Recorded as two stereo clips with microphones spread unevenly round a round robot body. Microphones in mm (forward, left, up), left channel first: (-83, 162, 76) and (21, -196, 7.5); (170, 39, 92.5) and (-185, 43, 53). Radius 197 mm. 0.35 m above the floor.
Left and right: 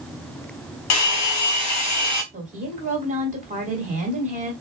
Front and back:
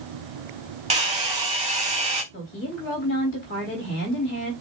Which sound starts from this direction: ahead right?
A woman speaking, at 2.3 s.